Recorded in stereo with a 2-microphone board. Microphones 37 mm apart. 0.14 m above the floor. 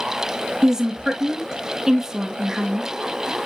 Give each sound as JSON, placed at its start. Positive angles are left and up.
{"t": 0.6, "sound": "a woman speaking", "side_deg": -15, "distance_m": 2.0}